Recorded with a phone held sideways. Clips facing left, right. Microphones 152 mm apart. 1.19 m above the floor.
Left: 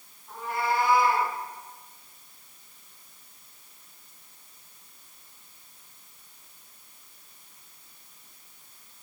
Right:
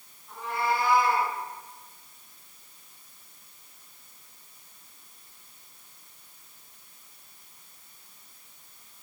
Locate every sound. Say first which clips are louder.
0.3 s a cat meowing: even; 45° left (ahead or behind), 6 m; by 1.3 s 50° left (ahead or behind), 5.5 m